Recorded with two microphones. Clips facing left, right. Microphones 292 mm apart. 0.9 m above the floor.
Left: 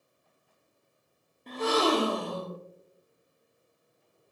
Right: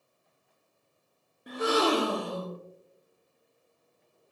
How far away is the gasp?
About 0.7 m.